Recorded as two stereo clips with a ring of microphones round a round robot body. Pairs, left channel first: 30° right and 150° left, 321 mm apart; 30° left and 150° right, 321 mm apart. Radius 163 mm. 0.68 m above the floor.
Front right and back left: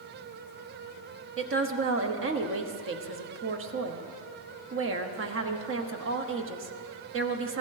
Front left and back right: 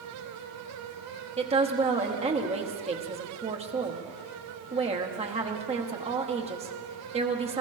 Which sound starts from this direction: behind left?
A woman speaking, at 1.4 s.